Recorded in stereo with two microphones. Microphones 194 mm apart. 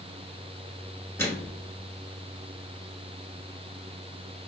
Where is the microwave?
15° left (ahead or behind), 0.9 m.